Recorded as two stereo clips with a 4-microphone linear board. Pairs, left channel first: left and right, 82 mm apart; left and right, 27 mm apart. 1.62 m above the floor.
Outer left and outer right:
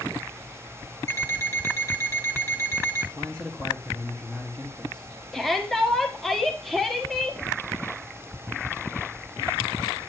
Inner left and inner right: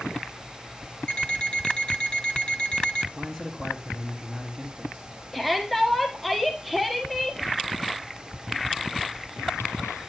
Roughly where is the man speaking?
Centre.